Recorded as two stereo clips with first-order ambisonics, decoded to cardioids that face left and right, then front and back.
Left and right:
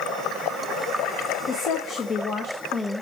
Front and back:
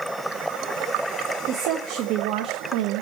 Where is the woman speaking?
140° left, 1.2 m; by 3.0 s straight behind, 1.0 m.